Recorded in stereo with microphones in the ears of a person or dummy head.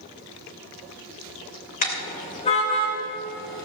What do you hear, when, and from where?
1.8 s a car horn: 45° left (ahead or behind), 2.5 m; by 3.7 s 30° left (ahead or behind), 3.5 m